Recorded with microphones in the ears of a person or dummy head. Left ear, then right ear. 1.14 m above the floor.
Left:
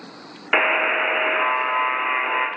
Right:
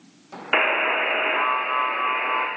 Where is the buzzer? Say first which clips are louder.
Left 2 dB; centre (ahead or behind), 0.6 m.